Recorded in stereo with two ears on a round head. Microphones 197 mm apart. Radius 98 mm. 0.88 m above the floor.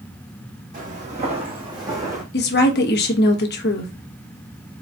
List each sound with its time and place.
0.7 s footsteps: 40° right (ahead or behind), 1.9 m; by 2.2 s 15° right (ahead or behind), 2 m
2.3 s a woman speaking: 50° left (ahead or behind), 1.1 m